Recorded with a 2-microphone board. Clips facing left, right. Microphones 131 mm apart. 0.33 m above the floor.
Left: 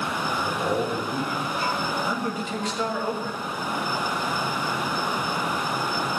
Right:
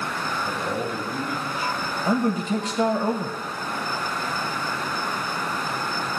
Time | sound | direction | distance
0.4 | a man speaking | 60° left (ahead or behind) | 5.5 m
2.0 | a man speaking | 40° right (ahead or behind) | 1.4 m